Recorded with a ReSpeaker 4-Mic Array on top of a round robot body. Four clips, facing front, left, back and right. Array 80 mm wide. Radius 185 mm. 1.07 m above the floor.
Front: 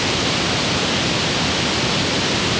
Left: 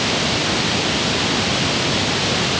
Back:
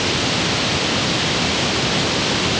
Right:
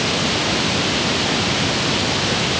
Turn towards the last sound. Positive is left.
No sound to turn to.